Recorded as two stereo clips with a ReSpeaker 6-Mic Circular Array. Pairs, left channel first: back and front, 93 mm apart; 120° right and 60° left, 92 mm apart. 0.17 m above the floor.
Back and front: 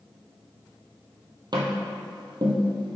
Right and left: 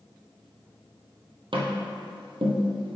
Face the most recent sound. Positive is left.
turn(degrees=40)